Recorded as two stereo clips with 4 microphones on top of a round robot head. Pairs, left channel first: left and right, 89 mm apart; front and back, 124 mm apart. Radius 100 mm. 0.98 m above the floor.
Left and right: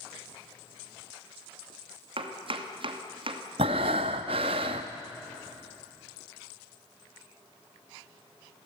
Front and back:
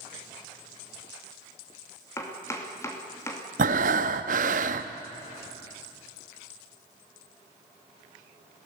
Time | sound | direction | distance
2.2 | chopping | 70° right | 2.5 m
3.6 | breathing | 140° right | 0.7 m